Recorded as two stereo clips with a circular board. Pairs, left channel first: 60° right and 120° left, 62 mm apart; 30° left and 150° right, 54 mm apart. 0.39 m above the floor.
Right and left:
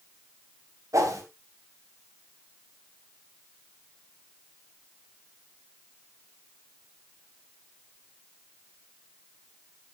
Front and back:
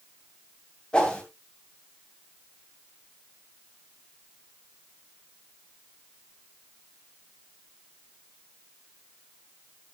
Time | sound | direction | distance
0.9 | a whoosh | 105° left | 3 m